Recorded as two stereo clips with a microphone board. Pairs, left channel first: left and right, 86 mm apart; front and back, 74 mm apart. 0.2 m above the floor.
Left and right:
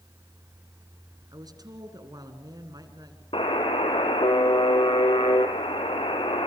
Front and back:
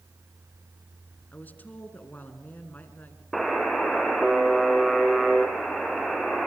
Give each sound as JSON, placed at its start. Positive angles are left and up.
{"t": 1.3, "sound": "a woman speaking", "azimuth_deg": -60, "distance_m": 2.5}
{"t": 3.3, "sound": "a buzzer", "azimuth_deg": 90, "distance_m": 2.0}